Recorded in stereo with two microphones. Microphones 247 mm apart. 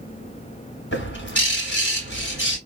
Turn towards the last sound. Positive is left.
turn(degrees=50)  # may be behind; listen again after turning